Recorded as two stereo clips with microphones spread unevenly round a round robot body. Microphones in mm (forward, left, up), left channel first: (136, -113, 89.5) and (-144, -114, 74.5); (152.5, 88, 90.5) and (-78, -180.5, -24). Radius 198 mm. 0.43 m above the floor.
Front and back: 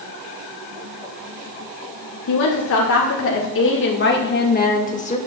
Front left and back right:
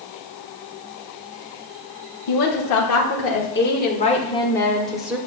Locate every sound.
2.3 s a woman speaking: 10° left, 1.6 m; by 5.2 s 65° right, 1.6 m